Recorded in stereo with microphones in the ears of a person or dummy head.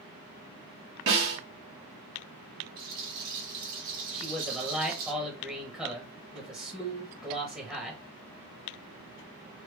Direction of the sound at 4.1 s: 5° right (ahead or behind).